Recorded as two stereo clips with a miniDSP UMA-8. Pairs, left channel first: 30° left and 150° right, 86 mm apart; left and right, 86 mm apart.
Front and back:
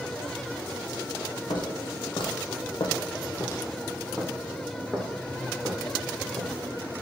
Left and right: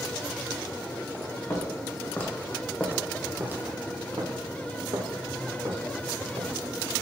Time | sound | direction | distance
1.5 | footsteps | 35° left | 1.5 m